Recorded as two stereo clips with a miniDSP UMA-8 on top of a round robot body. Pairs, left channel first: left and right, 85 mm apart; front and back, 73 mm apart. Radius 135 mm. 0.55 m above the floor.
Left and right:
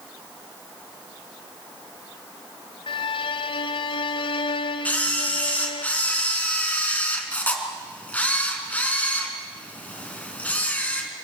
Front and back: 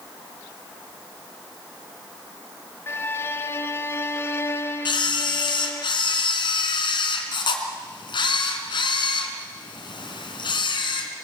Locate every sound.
2.9 s a violin: 65° left, 0.9 m
4.8 s a camera shutter: 15° left, 3.5 m